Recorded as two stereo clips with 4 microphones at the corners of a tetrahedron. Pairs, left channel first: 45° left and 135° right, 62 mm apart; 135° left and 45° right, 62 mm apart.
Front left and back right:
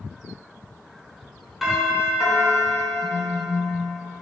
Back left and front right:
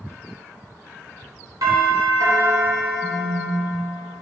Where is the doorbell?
45° right, 4.5 m.